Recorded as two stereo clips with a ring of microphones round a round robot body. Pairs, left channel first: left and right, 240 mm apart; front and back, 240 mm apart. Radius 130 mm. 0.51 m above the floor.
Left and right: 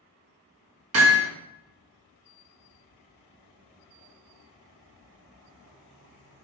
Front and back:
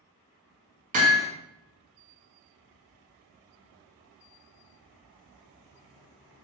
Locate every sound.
0.9 s hammering: 120° right, 2.5 m